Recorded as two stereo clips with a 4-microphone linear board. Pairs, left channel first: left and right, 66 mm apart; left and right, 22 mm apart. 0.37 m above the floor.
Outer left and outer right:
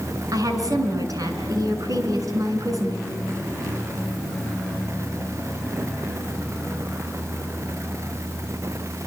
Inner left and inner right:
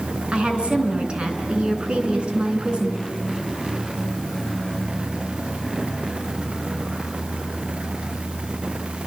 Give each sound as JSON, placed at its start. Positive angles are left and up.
{"t": 0.3, "sound": "a woman speaking", "side_deg": -60, "distance_m": 4.5}